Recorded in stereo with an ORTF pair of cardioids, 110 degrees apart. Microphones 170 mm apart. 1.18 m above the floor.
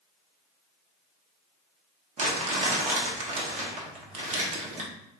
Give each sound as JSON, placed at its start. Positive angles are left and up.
{"t": 2.2, "sound": "crumpling", "azimuth_deg": -45, "distance_m": 1.2}